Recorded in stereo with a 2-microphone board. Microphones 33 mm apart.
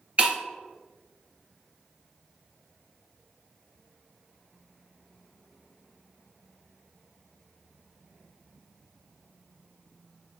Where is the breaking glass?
35° right (ahead or behind), 0.6 m.